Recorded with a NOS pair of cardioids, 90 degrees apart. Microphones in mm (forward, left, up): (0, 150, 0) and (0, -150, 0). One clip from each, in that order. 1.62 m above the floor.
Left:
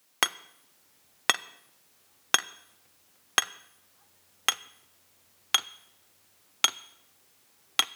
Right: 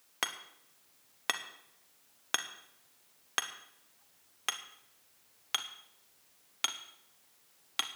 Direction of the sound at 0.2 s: 40° left.